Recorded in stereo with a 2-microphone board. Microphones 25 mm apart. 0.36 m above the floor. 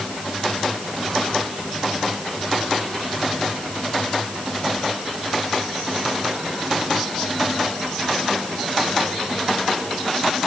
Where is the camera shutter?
I don't hear a camera shutter.